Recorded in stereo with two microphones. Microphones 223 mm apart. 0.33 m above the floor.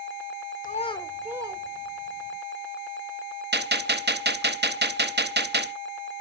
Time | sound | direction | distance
0.6 | a child speaking | 40° left (ahead or behind) | 0.7 m
3.5 | a gunshot | 50° right (ahead or behind) | 0.7 m